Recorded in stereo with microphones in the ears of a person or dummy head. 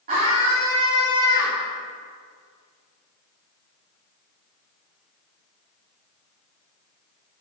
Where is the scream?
40° right (ahead or behind), 3 m.